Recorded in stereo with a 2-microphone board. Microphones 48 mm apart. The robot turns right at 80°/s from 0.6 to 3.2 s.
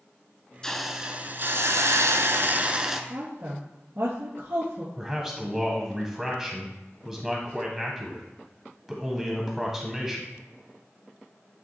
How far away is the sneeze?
No sneeze in this recording.